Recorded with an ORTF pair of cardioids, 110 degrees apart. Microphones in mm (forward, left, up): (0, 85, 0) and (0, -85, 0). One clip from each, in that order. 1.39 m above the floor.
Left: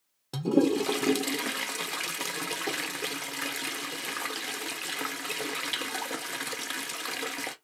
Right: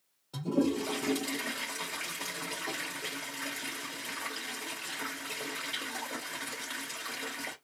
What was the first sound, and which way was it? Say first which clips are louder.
A toilet flushing: left 6 dB; 65° left.